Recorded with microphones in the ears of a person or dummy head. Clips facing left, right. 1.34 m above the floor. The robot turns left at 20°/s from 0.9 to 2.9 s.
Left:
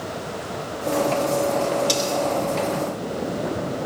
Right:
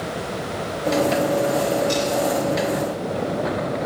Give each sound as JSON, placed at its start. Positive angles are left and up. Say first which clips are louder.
{"t": 1.9, "sound": "cutlery clinking", "louder": "right 2 dB", "side_deg": 50, "distance_m": 3.0}